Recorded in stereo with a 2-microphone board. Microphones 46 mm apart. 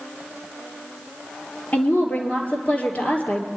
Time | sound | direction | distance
1.7 | a woman speaking | 30° left (ahead or behind) | 2.5 m